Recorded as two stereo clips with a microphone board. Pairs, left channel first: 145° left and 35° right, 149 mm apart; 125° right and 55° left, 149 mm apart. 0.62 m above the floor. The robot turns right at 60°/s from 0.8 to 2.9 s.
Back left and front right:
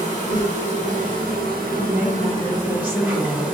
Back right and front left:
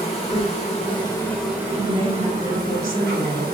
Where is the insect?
75° right, 0.8 m; by 3.5 s 50° left, 0.8 m.